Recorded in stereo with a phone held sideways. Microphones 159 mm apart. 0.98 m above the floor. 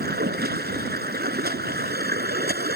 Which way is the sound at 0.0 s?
85° right.